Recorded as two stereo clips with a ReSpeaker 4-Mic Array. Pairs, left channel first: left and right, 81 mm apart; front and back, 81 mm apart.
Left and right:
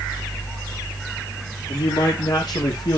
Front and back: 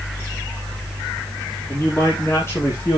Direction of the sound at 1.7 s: 60° left.